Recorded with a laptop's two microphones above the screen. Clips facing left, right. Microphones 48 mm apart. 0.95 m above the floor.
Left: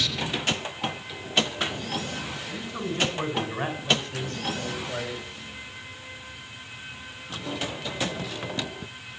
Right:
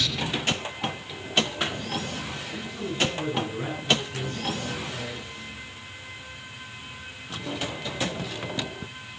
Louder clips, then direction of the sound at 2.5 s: Left 2 dB; 70° left (ahead or behind).